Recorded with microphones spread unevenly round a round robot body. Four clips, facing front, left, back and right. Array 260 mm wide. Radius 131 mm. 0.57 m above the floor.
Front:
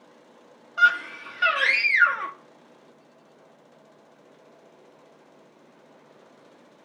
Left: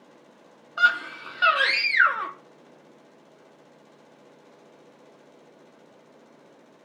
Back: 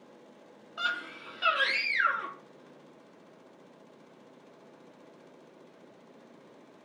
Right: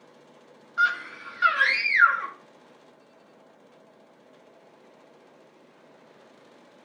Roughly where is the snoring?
No snoring in this recording.